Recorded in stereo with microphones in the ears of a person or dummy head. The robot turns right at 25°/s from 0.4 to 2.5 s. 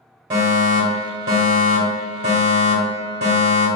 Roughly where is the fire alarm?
Centre.